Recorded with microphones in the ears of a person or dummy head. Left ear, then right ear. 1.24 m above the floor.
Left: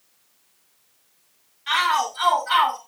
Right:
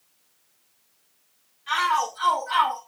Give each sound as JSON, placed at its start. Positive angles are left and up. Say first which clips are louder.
{"t": 1.7, "sound": "a shout", "louder": "left 2 dB", "side_deg": 35, "distance_m": 9.5}